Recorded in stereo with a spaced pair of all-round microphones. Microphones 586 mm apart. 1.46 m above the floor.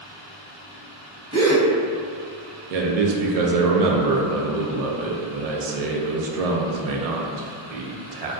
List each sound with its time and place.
1.3 s a gasp: 25° right (ahead or behind), 0.7 m
2.7 s a man speaking: 75° right (ahead or behind), 0.5 m